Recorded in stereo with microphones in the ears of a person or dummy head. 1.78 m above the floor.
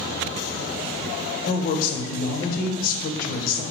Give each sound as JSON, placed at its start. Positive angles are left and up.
{"t": 1.5, "sound": "a woman speaking", "side_deg": 50, "distance_m": 0.6}